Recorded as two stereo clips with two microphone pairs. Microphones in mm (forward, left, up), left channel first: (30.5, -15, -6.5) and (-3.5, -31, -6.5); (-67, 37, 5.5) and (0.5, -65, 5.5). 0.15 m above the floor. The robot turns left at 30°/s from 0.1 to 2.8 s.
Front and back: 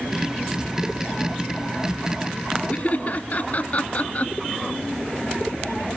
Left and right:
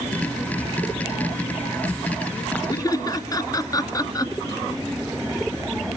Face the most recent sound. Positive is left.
turn(degrees=70)